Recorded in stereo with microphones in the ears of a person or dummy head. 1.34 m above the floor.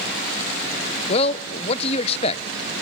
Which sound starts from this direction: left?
A man speaking, at 1.1 s.